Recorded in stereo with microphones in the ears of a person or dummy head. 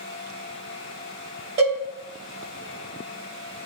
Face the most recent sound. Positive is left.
turn(degrees=-25)  # may be behind; listen again after turning